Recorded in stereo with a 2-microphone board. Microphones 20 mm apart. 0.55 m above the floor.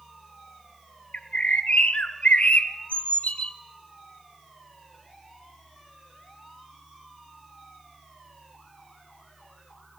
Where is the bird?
85° left, 0.6 m.